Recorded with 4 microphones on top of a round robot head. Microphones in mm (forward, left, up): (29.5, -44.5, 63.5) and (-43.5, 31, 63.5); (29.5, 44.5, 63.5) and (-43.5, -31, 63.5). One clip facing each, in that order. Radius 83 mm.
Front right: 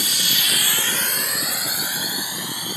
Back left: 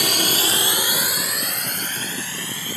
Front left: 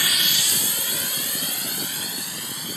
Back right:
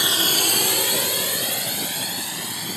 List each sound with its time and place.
0.0 s a drone: 155° left; by 2.8 s 120° right